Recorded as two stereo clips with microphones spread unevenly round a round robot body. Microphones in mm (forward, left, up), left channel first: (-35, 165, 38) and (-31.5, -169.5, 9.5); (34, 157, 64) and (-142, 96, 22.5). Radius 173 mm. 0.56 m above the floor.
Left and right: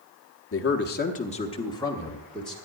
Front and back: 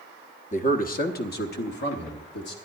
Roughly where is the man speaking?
Ahead left.